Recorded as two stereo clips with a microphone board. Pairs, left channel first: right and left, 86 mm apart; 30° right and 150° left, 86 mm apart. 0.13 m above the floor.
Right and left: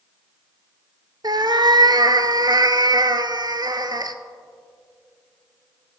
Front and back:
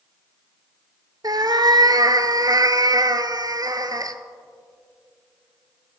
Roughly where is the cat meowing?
Behind left.